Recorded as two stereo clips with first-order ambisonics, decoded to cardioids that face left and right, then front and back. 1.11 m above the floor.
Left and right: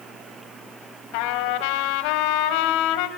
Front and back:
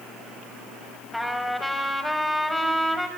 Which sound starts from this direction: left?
A trumpet, at 1.1 s.